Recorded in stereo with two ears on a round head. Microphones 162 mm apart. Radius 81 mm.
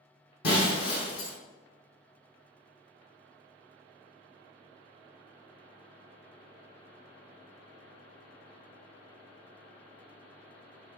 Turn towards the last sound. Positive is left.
turn(degrees=55)  # may be behind; listen again after turning